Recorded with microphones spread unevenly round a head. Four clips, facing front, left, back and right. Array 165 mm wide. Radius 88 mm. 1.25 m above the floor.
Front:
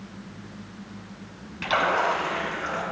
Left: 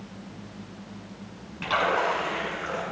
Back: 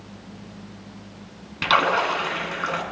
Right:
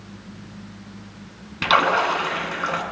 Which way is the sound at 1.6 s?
110° right.